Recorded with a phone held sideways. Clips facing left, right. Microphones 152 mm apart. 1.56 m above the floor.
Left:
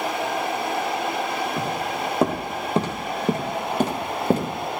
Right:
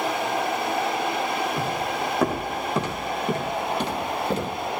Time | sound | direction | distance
1.6 | footsteps | 20° left (ahead or behind) | 3.5 m